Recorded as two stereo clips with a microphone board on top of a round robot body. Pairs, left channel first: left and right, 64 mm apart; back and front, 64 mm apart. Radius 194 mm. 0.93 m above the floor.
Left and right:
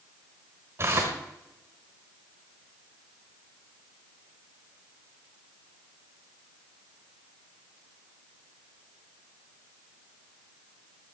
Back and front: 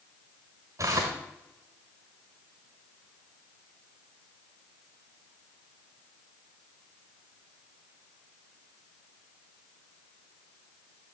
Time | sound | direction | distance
0.8 | tearing paper | 40° right | 1.0 m